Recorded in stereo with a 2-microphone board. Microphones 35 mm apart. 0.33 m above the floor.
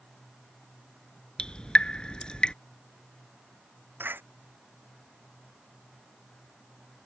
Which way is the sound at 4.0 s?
85° right.